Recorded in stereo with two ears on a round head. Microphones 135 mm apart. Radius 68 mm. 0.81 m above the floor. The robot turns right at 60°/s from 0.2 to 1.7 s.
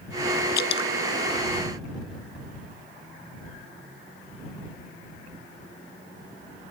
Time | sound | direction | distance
0.6 | dripping | 70° left (ahead or behind) | ?